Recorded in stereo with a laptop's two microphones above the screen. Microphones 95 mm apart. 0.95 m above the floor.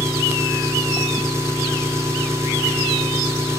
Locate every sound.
0.0 s an engine running: 30° right (ahead or behind), 2.5 m